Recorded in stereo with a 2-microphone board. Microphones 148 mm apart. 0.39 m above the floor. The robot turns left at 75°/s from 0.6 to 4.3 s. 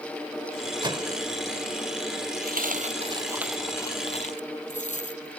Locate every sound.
0.8 s a microwave: 30° right (ahead or behind); by 1.2 s 45° right (ahead or behind)
2.4 s a dropped coin: 85° right; by 5.4 s 55° left (ahead or behind)